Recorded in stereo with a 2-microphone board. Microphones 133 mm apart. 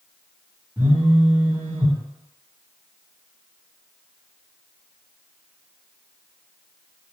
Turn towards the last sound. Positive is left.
turn(degrees=-15)  # may be behind; listen again after turning